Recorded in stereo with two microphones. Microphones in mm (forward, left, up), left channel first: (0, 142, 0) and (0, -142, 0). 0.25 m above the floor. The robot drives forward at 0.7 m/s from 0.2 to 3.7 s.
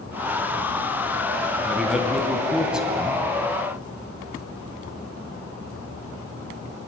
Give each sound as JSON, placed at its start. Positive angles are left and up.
{"t": 1.6, "sound": "a man speaking", "side_deg": 0, "distance_m": 3.0}